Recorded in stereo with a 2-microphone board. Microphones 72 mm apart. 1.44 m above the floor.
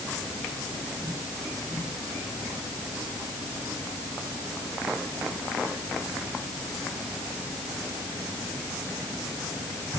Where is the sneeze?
I don't hear a sneeze.